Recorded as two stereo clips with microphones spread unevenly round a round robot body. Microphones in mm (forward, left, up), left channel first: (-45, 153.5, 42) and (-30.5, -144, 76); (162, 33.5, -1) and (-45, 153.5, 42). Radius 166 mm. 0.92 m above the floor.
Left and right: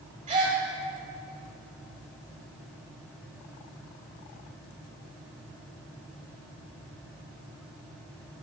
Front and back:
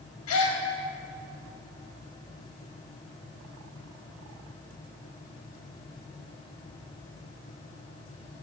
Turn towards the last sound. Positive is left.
turn(degrees=-20)